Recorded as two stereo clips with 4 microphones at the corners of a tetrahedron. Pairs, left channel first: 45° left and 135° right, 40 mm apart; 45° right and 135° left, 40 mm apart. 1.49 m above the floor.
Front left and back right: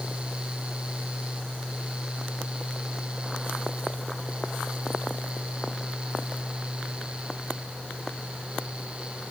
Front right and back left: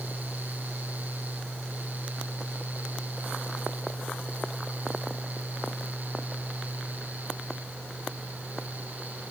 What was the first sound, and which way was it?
Only background noise.